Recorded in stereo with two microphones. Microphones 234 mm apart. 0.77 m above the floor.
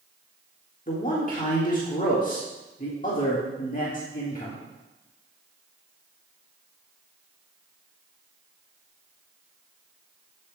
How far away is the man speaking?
About 1.4 m.